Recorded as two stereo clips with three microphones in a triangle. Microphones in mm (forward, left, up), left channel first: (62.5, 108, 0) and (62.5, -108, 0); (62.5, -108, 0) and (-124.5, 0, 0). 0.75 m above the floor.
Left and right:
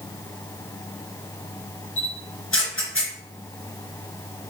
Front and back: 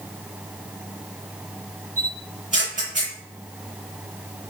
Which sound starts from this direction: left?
A camera shutter, at 2.0 s.